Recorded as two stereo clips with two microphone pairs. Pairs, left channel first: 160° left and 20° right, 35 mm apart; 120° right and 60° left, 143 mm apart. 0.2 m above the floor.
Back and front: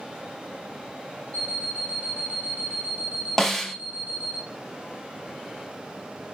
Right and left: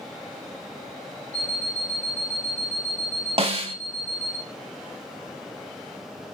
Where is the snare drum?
80° left, 0.7 m.